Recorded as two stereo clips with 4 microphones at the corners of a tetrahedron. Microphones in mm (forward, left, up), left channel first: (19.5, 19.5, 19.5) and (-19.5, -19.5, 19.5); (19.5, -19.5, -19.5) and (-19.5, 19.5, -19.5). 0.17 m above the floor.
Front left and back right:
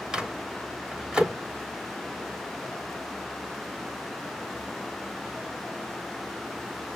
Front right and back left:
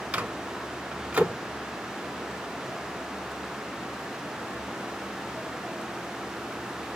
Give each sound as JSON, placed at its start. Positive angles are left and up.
{"t": 0.1, "sound": "a microwave", "azimuth_deg": 170, "distance_m": 1.0}